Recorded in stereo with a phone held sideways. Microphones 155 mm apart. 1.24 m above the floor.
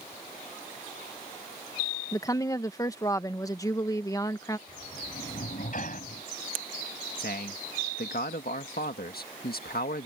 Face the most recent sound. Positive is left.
turn(degrees=75)  # may be behind; listen again after turning